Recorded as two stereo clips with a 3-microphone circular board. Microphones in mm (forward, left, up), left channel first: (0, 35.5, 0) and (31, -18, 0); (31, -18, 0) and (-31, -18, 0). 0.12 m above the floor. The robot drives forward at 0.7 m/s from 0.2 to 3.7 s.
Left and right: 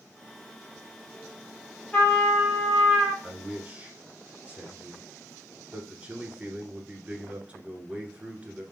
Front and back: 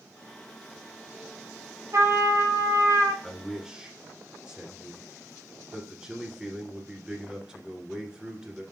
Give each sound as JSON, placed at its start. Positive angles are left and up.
{"t": 1.9, "sound": "a trumpet", "azimuth_deg": -170, "distance_m": 3.0}
{"t": 3.2, "sound": "a man speaking", "azimuth_deg": -90, "distance_m": 1.3}